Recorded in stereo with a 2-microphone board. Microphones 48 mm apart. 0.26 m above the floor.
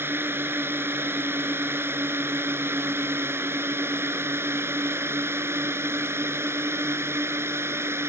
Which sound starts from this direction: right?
A drone, at 0.0 s.